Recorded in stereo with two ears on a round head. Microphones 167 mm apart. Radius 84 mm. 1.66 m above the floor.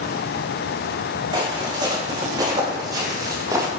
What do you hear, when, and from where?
1.3 s footsteps: 25° right (ahead or behind), 5.5 m; by 3.7 s 20° right (ahead or behind), 3 m